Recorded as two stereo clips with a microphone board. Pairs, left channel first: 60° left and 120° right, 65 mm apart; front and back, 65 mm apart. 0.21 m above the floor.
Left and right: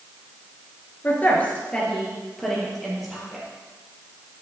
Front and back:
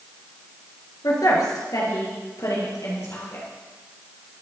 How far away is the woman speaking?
About 3 m.